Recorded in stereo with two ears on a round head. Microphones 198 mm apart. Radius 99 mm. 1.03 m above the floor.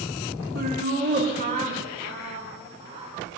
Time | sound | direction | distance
0.6 | laughter | 45° right (ahead or behind) | 2 m